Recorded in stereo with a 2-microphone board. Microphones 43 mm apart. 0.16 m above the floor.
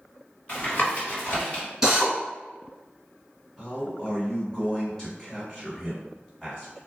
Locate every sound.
0.5 s tapping: 30° left (ahead or behind), 1.5 m
1.8 s a drill: 10° right (ahead or behind), 1.1 m
3.6 s a man speaking: 15° left (ahead or behind), 1.5 m